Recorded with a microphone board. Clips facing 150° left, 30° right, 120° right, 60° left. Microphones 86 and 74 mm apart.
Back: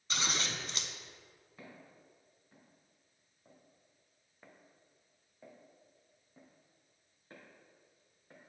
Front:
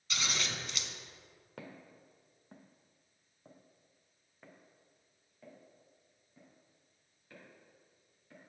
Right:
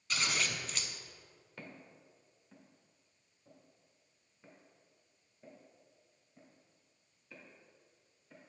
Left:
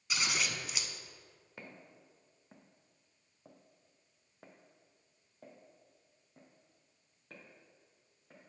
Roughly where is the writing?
I don't hear writing.